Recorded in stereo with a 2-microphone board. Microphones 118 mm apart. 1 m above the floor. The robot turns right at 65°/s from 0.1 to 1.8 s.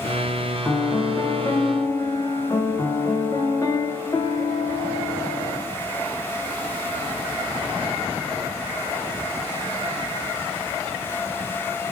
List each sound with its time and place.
0.7 s a piano: 15° left (ahead or behind), 0.6 m; by 5.6 s 30° left (ahead or behind), 0.6 m